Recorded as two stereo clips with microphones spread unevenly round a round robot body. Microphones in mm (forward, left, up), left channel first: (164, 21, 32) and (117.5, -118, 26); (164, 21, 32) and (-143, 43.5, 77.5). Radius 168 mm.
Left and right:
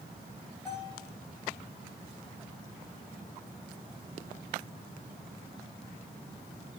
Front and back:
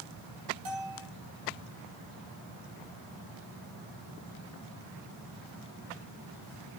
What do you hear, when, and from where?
0.7 s a bell: 160° left, 4 m